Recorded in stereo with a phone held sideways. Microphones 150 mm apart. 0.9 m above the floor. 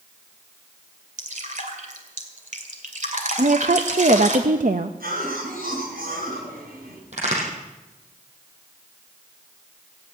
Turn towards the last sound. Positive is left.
turn(degrees=-50)  # may be behind; listen again after turning